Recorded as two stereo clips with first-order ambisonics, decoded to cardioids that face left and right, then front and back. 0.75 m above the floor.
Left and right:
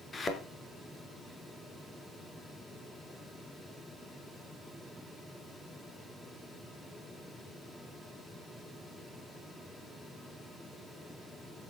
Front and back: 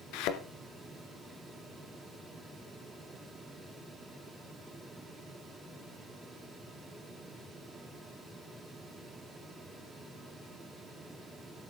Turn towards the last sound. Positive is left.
turn(degrees=15)